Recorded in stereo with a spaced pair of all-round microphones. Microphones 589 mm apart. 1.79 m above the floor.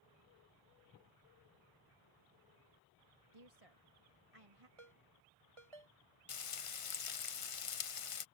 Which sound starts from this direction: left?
Frying, at 6.3 s.